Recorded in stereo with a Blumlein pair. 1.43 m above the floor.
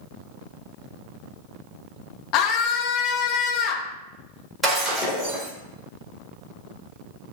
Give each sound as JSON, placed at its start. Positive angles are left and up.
{"t": 2.3, "sound": "a scream", "azimuth_deg": 40, "distance_m": 0.6}
{"t": 4.6, "sound": "breaking glass", "azimuth_deg": -15, "distance_m": 1.6}